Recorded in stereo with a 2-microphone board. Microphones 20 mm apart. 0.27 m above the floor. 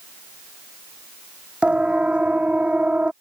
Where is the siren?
70° right (ahead or behind); by 3.1 s 75° right (ahead or behind).